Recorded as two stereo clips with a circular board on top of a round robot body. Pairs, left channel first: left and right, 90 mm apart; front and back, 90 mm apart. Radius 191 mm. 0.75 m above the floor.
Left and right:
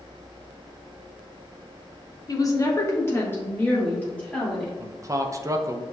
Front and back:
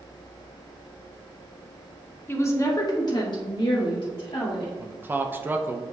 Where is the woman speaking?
60° left, 0.9 m; by 4.7 s 15° left, 2 m.